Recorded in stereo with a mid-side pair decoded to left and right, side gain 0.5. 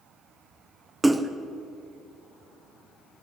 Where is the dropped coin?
I don't hear a dropped coin.